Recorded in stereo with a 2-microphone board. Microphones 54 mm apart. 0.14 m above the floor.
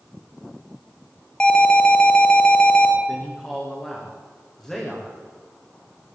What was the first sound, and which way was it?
An alarm, 20° left (ahead or behind).